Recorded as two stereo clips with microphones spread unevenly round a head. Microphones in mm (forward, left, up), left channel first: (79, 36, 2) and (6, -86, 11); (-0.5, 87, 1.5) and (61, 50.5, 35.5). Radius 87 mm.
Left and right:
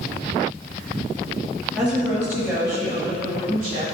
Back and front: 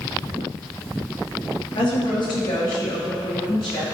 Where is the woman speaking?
150° left, 2.5 m; by 3.8 s 170° right, 3 m.